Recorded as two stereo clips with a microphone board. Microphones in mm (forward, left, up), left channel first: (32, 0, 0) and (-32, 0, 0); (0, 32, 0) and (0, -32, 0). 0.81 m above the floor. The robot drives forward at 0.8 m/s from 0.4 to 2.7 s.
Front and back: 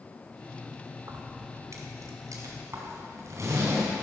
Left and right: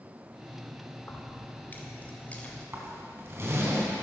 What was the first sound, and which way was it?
Keys jangling, 140° left.